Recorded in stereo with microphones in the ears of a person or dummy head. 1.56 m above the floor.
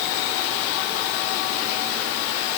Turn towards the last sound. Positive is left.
No sound to turn to.